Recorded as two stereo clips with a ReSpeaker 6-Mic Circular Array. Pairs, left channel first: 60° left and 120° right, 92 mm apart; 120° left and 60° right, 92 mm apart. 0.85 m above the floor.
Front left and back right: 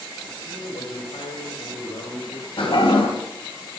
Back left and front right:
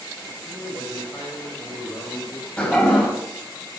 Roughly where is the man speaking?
Ahead left.